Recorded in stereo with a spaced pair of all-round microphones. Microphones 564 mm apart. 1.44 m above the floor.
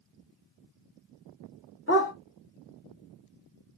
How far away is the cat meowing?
I don't hear a cat meowing.